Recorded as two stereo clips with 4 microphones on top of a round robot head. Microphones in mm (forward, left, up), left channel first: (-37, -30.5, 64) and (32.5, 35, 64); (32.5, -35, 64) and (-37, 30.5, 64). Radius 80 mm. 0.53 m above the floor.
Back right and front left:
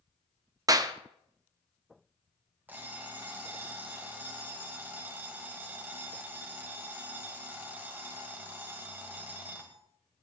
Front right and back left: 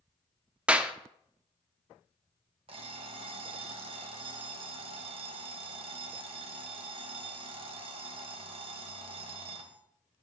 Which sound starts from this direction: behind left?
An alarm clock, at 2.7 s.